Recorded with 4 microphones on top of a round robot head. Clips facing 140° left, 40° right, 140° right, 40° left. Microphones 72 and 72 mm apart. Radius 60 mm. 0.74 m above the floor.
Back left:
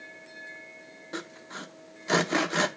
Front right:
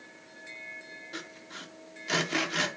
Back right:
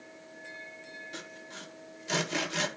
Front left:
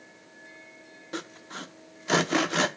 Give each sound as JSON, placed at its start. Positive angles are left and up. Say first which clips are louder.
{"t": 1.1, "sound": "sawing", "louder": "back left 7 dB, front left 6 dB", "azimuth_deg": 80, "distance_m": 0.5}